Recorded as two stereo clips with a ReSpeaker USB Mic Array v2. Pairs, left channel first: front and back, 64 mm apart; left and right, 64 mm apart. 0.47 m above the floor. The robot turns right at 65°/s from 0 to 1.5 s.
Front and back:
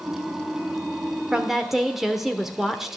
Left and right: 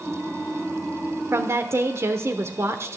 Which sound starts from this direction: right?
A woman speaking, at 1.3 s.